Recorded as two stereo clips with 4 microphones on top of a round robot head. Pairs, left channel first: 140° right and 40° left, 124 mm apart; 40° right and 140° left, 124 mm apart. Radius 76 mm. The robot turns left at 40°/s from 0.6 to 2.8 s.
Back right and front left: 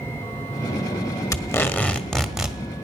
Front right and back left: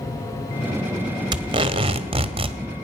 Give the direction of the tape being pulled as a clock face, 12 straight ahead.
6 o'clock.